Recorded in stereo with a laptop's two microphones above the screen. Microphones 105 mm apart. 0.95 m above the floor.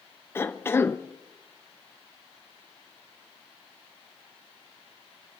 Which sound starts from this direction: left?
A cough, at 0.3 s.